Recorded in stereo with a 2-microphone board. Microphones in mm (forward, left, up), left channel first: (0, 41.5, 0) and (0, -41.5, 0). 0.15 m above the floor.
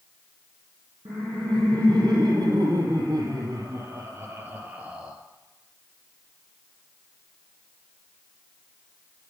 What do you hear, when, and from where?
1.1 s laughter: 70° right (ahead or behind), 4 m; by 5.2 s 10° right (ahead or behind), 2.5 m